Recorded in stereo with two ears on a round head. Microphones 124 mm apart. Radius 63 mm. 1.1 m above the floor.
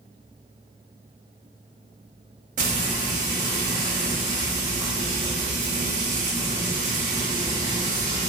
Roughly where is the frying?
Right.